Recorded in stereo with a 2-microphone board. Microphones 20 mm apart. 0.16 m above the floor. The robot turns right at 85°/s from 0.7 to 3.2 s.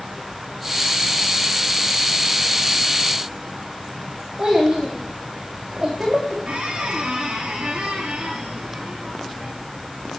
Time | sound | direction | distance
4.4 | a child speaking | 40° right (ahead or behind) | 5 m
6.5 | a squeak | 85° right | 4 m